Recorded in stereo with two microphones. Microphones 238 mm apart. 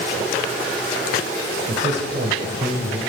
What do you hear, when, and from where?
1.7 s a man speaking: 45° right (ahead or behind), 3 m; by 3.0 s 40° right (ahead or behind), 2 m